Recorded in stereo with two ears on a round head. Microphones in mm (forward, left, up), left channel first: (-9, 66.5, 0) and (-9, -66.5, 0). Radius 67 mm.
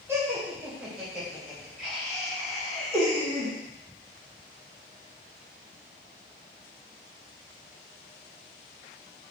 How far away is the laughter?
About 2.0 m.